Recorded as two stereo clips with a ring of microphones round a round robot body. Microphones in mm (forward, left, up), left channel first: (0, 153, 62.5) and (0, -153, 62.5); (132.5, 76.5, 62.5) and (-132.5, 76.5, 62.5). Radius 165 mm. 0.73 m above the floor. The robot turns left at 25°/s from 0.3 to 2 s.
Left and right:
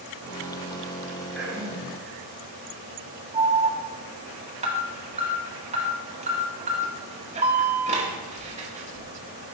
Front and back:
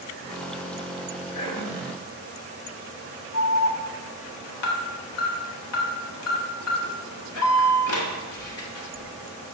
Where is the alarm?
25° right, 1.6 m.